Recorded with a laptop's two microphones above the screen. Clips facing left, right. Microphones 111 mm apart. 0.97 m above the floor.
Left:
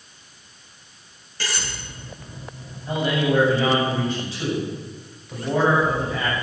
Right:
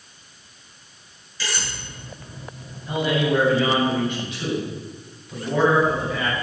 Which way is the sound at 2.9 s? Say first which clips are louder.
Even; 35° left (ahead or behind).